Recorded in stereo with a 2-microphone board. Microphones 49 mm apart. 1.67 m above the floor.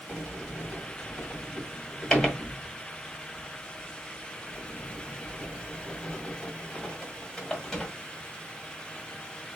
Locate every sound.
0.1 s a sliding door: 5° left (ahead or behind), 1.7 m